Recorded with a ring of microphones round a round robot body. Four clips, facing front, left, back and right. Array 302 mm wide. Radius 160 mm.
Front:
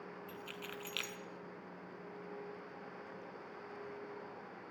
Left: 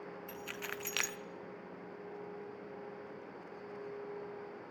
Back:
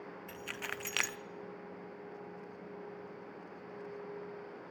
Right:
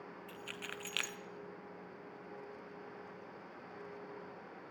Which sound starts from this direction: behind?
Keys jangling, at 0.3 s.